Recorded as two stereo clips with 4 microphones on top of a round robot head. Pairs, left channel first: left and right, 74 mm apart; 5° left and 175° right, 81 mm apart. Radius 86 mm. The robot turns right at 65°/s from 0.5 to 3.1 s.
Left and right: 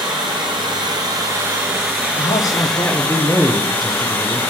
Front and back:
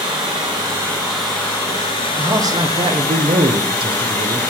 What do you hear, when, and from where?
0.0 s running water: 130° right, 1.7 m; by 4.5 s 40° left, 1.7 m
2.2 s a man speaking: 120° left, 1.1 m; by 4.4 s straight behind, 1.1 m